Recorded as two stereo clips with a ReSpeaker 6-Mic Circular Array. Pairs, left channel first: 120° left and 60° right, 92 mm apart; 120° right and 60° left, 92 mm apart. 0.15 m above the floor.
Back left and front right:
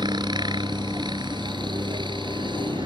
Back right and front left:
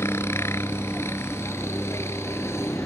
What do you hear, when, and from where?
0.0 s a helicopter: 65° right